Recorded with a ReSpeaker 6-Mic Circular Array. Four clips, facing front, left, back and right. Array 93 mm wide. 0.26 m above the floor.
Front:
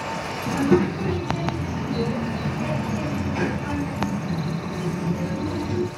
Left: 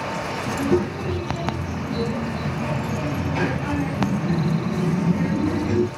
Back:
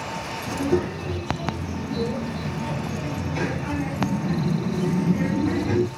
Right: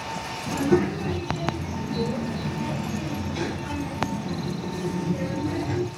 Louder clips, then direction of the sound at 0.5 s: Even, front 4 dB; straight ahead.